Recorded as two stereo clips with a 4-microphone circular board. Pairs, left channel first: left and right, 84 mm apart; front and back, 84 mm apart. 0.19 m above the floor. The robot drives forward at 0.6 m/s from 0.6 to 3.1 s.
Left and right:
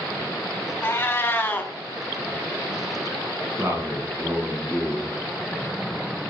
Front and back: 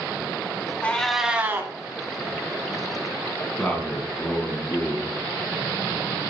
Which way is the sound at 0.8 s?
55° left.